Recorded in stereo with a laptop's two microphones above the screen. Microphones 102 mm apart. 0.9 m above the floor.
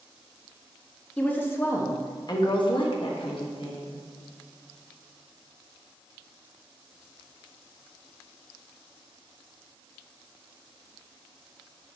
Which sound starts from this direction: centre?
A woman speaking, at 1.2 s.